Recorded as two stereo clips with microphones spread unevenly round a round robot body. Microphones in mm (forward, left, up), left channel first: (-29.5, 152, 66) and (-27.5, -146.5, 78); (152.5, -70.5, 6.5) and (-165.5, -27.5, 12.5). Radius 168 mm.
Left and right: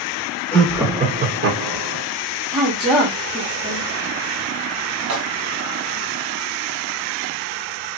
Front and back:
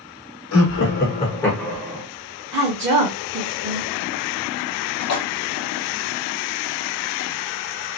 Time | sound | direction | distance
0.5 | laughter | 10° left | 1.0 m
2.5 | a woman speaking | 160° right | 1.1 m
5.0 | a splash | 50° right | 1.3 m